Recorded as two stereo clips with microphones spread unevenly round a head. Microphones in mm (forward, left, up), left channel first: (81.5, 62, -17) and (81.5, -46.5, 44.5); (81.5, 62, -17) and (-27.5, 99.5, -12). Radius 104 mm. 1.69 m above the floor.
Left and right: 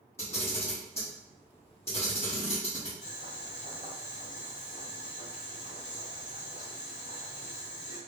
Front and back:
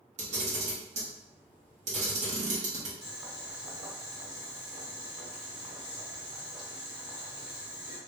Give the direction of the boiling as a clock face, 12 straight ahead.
7 o'clock.